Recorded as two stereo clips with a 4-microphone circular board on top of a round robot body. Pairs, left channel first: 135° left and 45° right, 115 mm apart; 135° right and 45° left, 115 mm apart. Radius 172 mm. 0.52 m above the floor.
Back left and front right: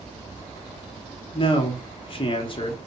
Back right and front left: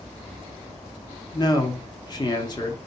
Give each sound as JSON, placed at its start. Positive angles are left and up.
{"t": 1.3, "sound": "a man speaking", "azimuth_deg": 175, "distance_m": 1.4}